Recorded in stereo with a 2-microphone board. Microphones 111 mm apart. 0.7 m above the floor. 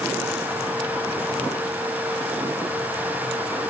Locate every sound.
Only background noise.